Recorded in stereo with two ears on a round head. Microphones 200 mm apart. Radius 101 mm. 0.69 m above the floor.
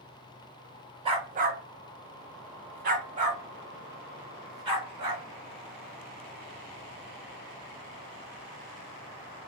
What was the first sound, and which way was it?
A dog barking, 25° right (ahead or behind).